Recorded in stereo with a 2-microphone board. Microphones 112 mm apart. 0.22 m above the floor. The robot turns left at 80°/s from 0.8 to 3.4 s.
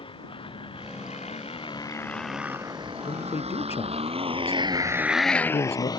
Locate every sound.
0.0 s a motorcycle: 55° left (ahead or behind); by 6.0 s 40° left (ahead or behind)
3.0 s a man speaking: 65° left (ahead or behind); by 5.9 s 75° left (ahead or behind)